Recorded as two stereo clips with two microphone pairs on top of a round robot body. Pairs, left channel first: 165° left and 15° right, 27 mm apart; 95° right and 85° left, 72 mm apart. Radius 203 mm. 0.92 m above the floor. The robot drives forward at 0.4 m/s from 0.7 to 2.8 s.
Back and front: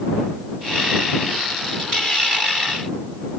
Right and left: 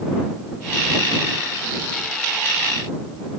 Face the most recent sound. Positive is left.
No sound to turn to.